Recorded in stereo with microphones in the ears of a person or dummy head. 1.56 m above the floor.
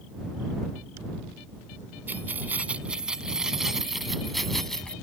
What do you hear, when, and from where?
2.1 s keys jangling: 10° right (ahead or behind); by 4.9 s 5° left (ahead or behind)